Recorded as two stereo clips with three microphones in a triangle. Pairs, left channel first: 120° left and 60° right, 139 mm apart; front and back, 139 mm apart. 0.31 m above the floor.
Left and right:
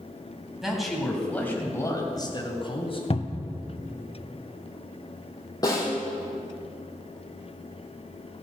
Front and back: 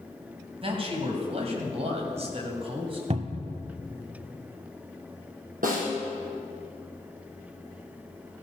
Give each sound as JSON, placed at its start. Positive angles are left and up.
{"t": 0.6, "sound": "a man speaking", "azimuth_deg": -145, "distance_m": 2.5}
{"t": 3.1, "sound": "a cupboard door", "azimuth_deg": 155, "distance_m": 0.7}
{"t": 5.6, "sound": "a snare drum", "azimuth_deg": -175, "distance_m": 4.5}